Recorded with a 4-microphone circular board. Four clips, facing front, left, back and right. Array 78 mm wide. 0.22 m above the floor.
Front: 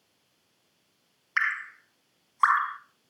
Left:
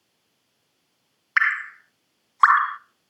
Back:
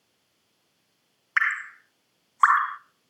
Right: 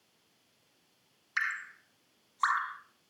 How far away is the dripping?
About 0.6 m.